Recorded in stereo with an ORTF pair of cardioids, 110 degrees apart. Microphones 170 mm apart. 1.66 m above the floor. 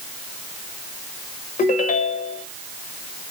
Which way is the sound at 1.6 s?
50° left.